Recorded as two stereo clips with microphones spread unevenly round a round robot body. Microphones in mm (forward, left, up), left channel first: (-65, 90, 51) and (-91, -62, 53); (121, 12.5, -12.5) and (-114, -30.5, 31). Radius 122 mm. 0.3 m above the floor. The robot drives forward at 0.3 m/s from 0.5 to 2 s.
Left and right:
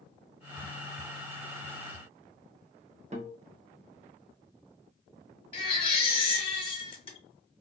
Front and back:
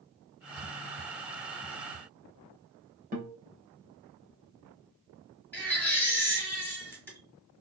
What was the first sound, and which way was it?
A guitar, 110° right.